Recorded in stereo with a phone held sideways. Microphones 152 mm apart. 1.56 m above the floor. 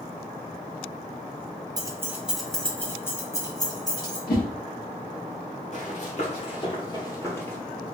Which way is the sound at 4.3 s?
75° left (ahead or behind).